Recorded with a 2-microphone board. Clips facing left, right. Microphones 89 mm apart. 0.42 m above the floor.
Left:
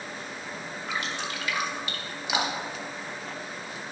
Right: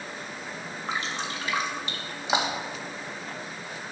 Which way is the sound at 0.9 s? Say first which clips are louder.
Right 1 dB; 30° right (ahead or behind).